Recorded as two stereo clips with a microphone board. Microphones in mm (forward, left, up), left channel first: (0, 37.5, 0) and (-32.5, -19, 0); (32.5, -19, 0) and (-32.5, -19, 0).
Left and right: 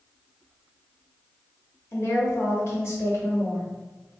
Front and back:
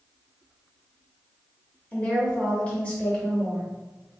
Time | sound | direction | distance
1.9 | a woman speaking | 60° left | 1.1 m